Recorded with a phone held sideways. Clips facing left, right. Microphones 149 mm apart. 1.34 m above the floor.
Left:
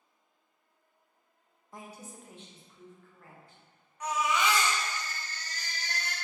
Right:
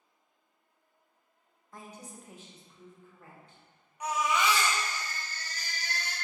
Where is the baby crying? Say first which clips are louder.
Even; 15° right (ahead or behind), 1.0 m.